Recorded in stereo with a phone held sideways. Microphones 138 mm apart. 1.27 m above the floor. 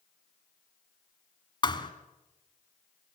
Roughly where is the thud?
Left.